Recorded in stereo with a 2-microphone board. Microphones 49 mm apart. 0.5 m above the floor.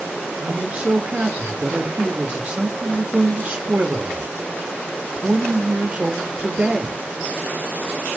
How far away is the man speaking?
About 1.5 m.